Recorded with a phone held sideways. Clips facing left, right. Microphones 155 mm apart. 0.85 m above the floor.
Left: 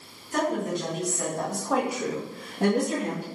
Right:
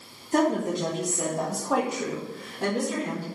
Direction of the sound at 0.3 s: 45° right (ahead or behind).